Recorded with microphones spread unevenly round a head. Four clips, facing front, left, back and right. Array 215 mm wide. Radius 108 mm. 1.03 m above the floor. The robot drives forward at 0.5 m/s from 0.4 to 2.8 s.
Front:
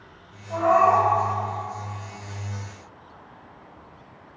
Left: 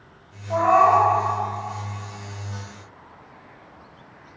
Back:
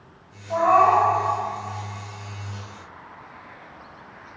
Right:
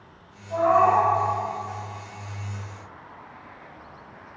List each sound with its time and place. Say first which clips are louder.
0.5 s a cat meowing: left 3 dB, back 1 dB; 120° left, 0.5 m; by 1.1 s 145° left, 0.7 m